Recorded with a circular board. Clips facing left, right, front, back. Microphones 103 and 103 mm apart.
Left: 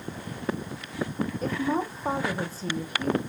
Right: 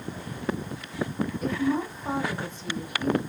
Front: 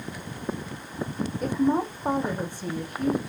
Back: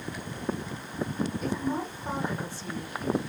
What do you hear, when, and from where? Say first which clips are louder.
1.4 s a woman speaking: right 1 dB, front 7 dB; 35° left, 4.5 m